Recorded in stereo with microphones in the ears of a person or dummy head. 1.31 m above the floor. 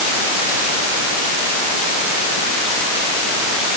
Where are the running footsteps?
No running footsteps in this recording.